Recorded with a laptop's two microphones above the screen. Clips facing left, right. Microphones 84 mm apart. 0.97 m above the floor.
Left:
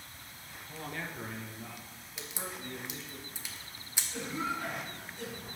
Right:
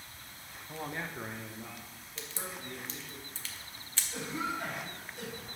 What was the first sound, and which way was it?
A man speaking, 30° right (ahead or behind).